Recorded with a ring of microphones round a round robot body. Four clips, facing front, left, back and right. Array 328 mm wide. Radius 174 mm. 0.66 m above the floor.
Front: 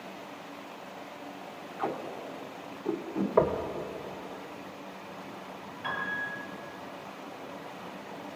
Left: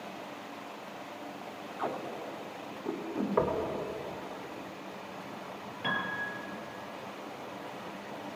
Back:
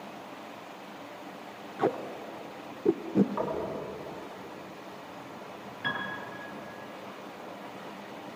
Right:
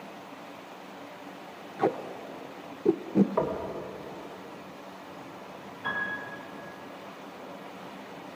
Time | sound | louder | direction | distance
1.8 | tape being pulled | right 7 dB, back 4 dB | 130° right | 0.7 m
3.4 | knocking | even, front 6 dB | 10° left | 2.5 m
5.8 | a piano | right 1 dB, even | 120° left | 3.5 m